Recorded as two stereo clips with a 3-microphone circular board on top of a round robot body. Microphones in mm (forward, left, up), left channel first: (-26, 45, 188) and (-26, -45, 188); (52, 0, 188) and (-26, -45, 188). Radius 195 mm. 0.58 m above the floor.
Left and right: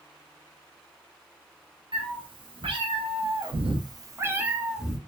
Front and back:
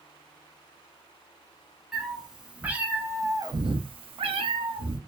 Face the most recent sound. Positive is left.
turn(degrees=180)